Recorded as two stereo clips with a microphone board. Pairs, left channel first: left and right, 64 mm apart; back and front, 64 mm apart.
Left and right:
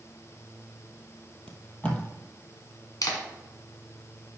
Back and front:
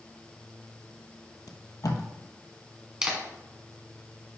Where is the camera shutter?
75° left, 1.5 m.